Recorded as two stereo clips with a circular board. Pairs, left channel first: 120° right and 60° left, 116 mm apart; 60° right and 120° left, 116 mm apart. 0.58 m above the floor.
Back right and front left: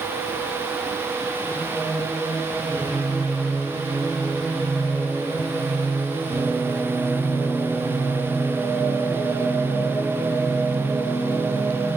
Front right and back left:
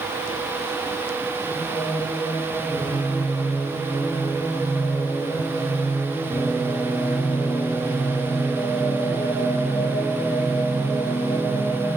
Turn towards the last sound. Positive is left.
turn(degrees=15)